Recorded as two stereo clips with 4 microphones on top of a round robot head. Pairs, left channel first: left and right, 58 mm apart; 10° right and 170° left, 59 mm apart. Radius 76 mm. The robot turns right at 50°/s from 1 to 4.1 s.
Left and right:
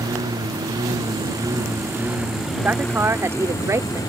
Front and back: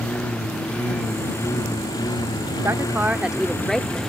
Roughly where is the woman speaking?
Behind right.